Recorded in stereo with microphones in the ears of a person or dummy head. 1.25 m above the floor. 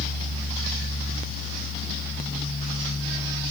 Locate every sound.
Only background noise.